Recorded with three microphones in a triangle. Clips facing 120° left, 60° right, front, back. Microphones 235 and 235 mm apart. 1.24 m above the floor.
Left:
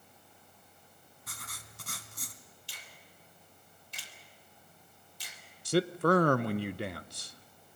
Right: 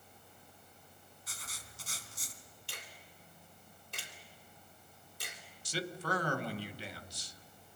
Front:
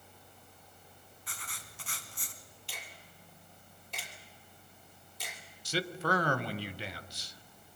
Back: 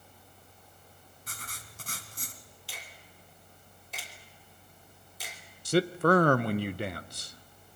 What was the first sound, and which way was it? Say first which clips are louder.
Writing: left 3 dB, back 3 dB; 140° left.